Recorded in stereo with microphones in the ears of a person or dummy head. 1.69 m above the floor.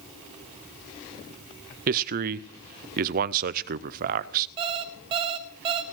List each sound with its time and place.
1.9 s a man speaking: 50° right (ahead or behind), 0.5 m
4.6 s an alarm clock: 25° right (ahead or behind), 0.9 m